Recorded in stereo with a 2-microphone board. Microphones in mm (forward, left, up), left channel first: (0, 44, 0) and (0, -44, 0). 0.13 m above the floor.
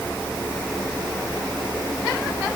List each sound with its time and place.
Only background noise.